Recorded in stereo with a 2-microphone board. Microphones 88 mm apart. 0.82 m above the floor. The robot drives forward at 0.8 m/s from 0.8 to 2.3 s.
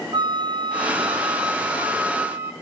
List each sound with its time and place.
0.1 s a flute: 65° right (ahead or behind), 0.6 m; by 2.5 s 25° right (ahead or behind), 1.5 m